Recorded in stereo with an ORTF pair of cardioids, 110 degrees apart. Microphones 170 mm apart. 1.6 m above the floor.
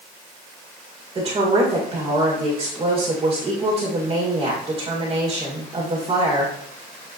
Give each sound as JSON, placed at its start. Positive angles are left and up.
{"t": 1.1, "sound": "a woman speaking", "azimuth_deg": -30, "distance_m": 2.0}